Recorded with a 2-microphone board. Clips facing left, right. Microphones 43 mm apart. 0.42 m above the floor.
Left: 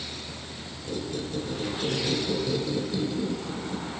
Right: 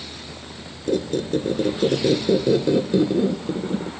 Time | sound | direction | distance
0.9 | a squeak | 60° right (ahead or behind) | 0.9 m